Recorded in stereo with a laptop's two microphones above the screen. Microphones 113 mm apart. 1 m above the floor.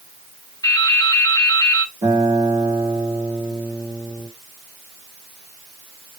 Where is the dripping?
35° left (ahead or behind), 0.6 m.